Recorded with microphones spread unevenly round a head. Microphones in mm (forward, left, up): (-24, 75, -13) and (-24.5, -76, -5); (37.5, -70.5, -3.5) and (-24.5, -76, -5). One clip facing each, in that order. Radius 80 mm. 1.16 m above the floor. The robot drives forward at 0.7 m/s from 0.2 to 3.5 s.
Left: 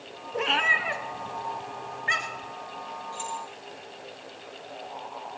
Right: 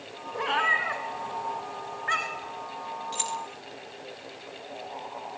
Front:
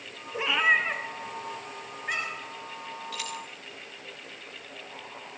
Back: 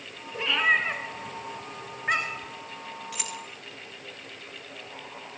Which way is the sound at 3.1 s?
100° right.